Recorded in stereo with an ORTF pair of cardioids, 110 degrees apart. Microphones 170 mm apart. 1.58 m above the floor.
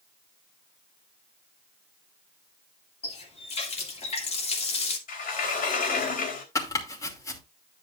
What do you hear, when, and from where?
3.0 s a running tap: 40° left, 2.5 m
5.1 s a sliding door: 55° left, 3.5 m
6.5 s chopping: 20° left, 3 m